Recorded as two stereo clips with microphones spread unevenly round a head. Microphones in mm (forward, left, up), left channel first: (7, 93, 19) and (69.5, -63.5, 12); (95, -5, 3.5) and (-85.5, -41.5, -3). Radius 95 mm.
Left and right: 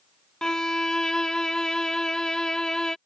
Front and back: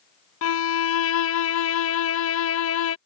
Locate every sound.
0.4 s a violin: 25° left